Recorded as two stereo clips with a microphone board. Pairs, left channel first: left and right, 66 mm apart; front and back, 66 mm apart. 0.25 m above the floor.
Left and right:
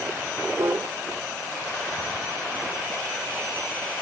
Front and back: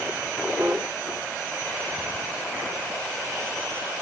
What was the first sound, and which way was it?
A piano, 125° right.